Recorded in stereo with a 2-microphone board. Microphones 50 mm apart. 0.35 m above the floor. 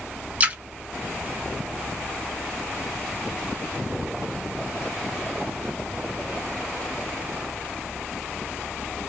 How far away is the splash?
About 0.7 m.